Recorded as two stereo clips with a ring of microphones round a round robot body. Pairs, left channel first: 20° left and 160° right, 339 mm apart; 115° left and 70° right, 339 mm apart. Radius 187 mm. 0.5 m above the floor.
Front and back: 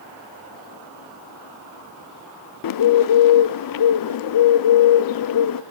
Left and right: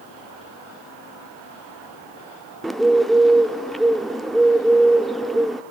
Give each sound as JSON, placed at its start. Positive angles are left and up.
{"t": 2.6, "sound": "a bird", "azimuth_deg": 25, "distance_m": 0.5}